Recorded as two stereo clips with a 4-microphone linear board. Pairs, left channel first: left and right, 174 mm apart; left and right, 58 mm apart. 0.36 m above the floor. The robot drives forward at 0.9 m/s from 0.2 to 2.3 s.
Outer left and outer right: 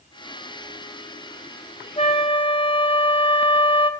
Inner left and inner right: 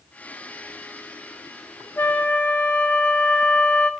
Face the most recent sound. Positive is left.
turn(degrees=35)  # may be behind; listen again after turning